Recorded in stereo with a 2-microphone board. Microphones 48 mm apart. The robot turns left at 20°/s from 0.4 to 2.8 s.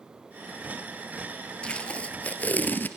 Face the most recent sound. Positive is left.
turn(degrees=40)  # may be behind; listen again after turning